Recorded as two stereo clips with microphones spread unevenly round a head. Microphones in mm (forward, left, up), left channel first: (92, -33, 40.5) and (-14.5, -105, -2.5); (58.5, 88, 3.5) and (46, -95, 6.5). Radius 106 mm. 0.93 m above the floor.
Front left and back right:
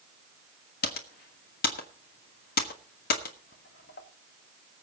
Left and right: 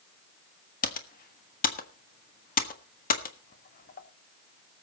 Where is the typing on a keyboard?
50° left, 1.6 m.